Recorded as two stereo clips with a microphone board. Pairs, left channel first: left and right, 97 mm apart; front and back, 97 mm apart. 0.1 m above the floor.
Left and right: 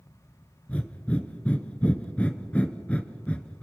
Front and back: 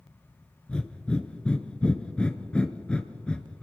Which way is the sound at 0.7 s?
55° left.